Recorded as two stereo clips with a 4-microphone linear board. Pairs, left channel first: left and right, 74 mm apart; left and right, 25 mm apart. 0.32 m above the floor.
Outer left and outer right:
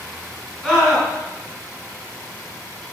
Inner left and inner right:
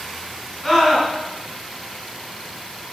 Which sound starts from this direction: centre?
A scream, at 0.6 s.